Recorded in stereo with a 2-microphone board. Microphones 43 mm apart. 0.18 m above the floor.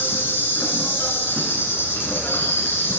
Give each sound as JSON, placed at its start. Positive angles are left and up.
{"t": 0.0, "sound": "an insect", "side_deg": 55, "distance_m": 0.9}